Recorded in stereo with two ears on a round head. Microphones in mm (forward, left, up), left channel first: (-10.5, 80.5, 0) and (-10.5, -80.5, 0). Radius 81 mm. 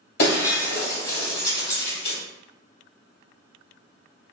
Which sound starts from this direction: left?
Breaking glass, at 0.2 s.